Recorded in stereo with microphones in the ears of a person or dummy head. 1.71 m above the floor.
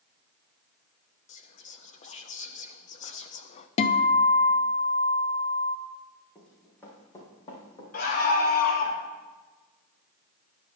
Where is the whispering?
35° left (ahead or behind), 0.7 m.